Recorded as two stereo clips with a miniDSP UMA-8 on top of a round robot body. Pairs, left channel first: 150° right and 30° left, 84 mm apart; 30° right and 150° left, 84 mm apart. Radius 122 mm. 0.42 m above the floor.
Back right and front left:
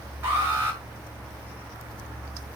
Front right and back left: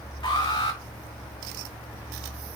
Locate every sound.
0.2 s an alarm: 35° right, 6.5 m